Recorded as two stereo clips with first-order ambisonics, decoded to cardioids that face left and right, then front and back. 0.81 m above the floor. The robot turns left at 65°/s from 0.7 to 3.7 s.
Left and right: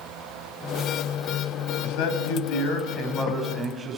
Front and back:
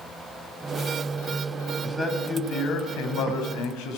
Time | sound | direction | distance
1.8 | a man speaking | 105° left | 6 m